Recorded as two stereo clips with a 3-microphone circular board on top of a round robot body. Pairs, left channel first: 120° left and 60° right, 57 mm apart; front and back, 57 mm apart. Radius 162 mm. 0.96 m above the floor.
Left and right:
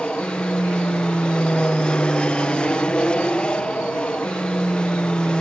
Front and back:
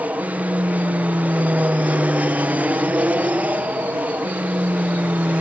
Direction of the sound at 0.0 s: 170° left.